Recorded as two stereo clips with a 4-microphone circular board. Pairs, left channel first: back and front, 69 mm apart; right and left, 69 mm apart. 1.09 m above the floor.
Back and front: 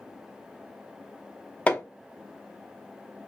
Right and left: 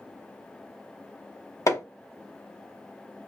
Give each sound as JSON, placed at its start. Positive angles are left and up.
{"t": 1.7, "sound": "hammering", "azimuth_deg": -110, "distance_m": 0.8}